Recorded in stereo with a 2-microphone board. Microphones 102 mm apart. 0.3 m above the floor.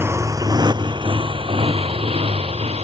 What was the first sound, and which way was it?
A motorcycle, 25° right (ahead or behind).